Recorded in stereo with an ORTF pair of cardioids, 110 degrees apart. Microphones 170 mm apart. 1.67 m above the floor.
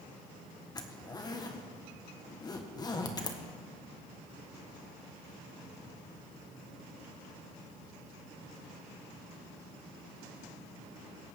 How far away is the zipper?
About 1.3 m.